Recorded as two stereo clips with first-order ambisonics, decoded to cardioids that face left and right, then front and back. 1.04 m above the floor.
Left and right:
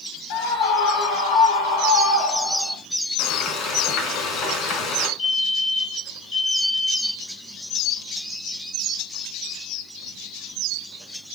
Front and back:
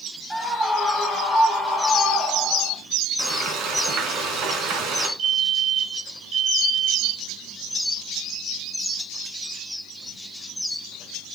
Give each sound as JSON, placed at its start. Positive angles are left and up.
{"t": 0.3, "sound": "a scream", "azimuth_deg": 95, "distance_m": 4.0}
{"t": 3.2, "sound": "frying", "azimuth_deg": 135, "distance_m": 3.0}
{"t": 5.2, "sound": "a fire alarm", "azimuth_deg": 145, "distance_m": 4.5}